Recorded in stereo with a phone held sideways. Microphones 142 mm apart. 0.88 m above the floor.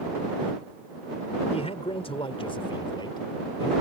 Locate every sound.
1.5 s a man speaking: 45° left (ahead or behind); by 3.7 s 30° left (ahead or behind)